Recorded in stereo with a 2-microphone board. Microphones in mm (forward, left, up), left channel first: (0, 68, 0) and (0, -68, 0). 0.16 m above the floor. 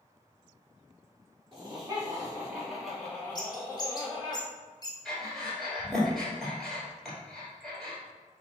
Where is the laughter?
35° right (ahead or behind), 1.5 m; by 4.3 s 35° left (ahead or behind), 1.5 m.